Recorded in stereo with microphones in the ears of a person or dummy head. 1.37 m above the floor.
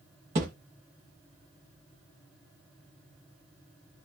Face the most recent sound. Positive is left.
turn(degrees=-25)  # may be behind; listen again after turning